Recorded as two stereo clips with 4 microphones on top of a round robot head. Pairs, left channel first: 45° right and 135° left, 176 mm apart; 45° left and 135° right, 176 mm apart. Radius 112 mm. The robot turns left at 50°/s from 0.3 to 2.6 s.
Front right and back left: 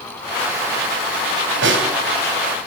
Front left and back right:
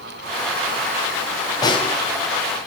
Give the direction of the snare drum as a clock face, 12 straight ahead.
8 o'clock.